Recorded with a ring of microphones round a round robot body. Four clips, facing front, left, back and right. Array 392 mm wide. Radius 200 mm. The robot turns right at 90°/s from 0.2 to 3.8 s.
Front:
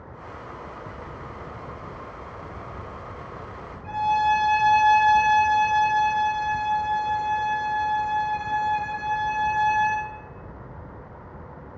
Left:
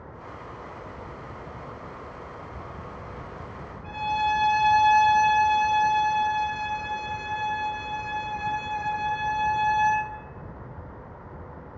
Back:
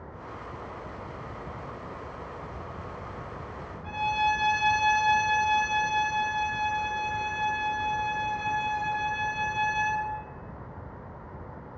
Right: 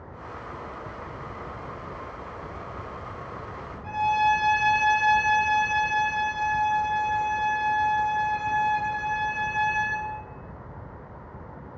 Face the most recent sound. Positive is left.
turn(degrees=145)